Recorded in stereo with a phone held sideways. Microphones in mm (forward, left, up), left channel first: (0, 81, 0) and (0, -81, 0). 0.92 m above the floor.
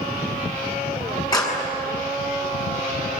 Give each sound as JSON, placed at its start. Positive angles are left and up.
{"t": 1.3, "sound": "a clap", "side_deg": 25, "distance_m": 6.5}